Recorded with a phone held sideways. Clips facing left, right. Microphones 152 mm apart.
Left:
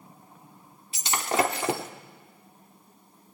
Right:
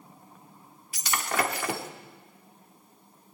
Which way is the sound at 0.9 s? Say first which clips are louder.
Left 3 dB; 25° left (ahead or behind).